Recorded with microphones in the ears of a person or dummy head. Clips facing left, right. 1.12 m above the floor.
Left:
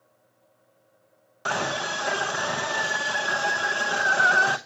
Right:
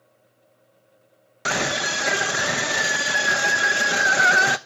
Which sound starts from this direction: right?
A scream, at 1.4 s.